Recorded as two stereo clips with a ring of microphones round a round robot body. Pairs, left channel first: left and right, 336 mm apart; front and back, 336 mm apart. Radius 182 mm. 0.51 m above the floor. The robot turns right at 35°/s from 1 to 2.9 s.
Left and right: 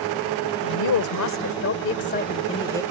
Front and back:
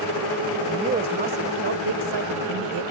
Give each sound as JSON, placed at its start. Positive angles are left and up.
{"t": 0.6, "sound": "a woman speaking", "azimuth_deg": 105}